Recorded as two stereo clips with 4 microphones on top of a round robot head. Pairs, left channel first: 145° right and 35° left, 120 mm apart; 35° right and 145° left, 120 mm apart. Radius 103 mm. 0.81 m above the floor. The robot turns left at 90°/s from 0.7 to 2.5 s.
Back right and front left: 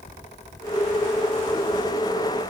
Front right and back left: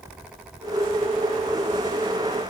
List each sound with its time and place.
Only background noise.